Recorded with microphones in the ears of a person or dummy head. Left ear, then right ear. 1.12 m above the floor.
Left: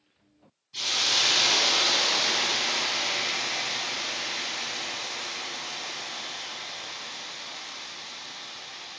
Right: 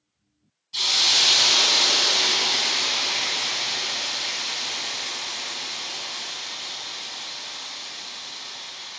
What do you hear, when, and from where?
0.7 s a hiss: 25° right (ahead or behind), 4 m